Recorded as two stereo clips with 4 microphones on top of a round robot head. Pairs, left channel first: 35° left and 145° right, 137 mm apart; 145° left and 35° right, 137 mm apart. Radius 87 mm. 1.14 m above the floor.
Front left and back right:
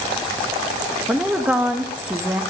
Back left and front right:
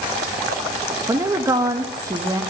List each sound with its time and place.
1.1 s a woman speaking: 75° right, 0.6 m